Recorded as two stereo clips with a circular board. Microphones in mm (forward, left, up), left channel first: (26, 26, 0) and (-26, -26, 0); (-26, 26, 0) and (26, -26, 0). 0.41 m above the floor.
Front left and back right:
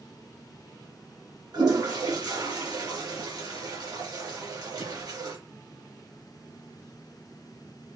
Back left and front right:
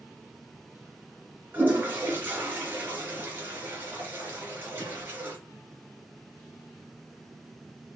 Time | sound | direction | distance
1.5 | a toilet flushing | 110° right | 3.5 m